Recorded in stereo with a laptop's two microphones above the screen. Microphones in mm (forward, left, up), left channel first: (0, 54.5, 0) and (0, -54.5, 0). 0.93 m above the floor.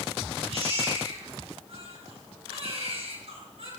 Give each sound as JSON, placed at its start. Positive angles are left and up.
{"t": 0.5, "sound": "a baby crying", "side_deg": -65, "distance_m": 9.0}